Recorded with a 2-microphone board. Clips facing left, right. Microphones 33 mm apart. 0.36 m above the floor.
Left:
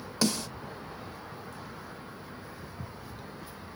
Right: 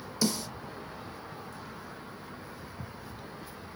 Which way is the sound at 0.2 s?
60° left (ahead or behind).